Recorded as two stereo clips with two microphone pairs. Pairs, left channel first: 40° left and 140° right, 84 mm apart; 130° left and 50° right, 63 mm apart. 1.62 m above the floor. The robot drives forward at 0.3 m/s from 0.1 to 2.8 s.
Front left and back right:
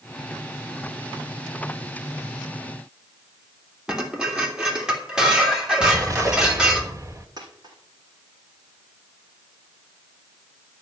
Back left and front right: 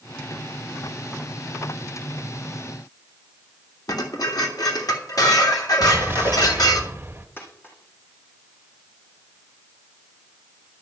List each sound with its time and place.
3.9 s dishes clattering: 140° left, 3 m
5.8 s an explosion: 100° right, 1.4 m
7.4 s a dropped coin: 175° right, 5 m